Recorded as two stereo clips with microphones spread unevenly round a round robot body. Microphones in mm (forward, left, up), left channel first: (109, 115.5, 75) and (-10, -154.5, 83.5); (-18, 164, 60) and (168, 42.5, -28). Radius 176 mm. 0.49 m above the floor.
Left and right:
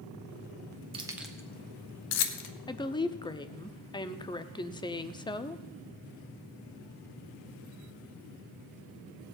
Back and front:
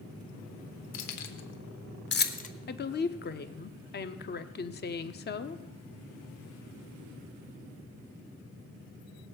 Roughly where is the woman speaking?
Behind left.